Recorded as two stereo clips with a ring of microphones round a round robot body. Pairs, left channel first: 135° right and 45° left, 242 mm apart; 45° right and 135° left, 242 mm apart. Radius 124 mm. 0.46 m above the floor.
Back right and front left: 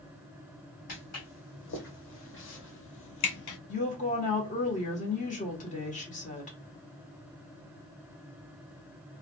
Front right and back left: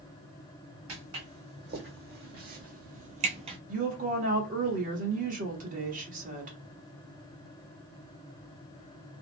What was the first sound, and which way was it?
Footsteps, 175° right.